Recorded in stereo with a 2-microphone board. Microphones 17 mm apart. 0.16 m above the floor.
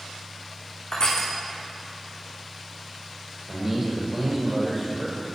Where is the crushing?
50° left (ahead or behind), 5.5 m.